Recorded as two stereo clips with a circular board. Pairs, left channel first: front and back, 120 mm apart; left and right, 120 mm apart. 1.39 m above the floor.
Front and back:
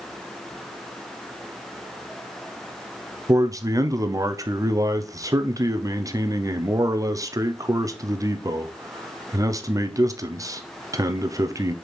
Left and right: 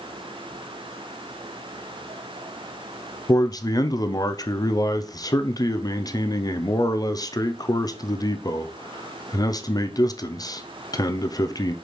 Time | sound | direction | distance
3.3 | a man speaking | 130° left | 0.6 m